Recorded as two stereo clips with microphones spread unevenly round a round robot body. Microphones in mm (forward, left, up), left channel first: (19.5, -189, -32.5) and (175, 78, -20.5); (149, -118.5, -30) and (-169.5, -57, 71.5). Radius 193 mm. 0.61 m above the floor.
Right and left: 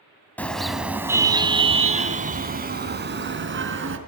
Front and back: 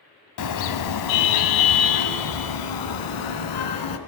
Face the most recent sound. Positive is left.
turn(degrees=15)